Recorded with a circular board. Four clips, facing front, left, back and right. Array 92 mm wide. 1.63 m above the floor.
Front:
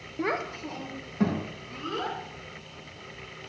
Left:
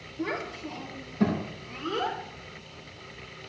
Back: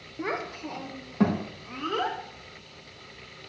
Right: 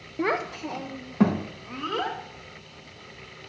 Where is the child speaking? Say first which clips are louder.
Right 6 dB, front 2 dB; 70° right, 0.8 m; by 2.2 s 125° right, 2.5 m.